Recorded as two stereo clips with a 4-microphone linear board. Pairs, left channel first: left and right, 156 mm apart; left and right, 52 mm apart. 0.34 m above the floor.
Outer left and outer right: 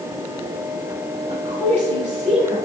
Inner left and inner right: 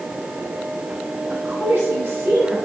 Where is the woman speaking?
45° right (ahead or behind), 1.3 m.